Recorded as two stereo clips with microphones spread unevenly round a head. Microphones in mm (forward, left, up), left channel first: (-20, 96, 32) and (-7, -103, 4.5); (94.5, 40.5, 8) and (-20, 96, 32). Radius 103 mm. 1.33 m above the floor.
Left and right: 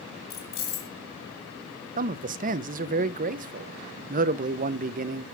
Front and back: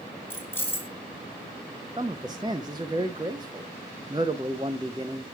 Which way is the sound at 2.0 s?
140° right.